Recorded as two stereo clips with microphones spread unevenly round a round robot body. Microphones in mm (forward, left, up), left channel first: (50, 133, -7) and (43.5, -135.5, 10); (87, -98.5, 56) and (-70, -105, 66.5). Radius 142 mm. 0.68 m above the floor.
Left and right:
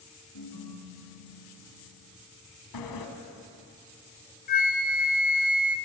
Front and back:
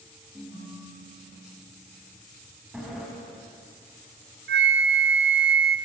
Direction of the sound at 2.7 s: 95° left.